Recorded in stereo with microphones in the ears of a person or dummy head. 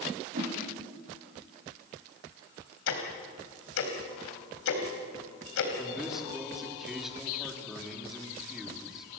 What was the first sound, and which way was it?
A whoosh, 45° right (ahead or behind).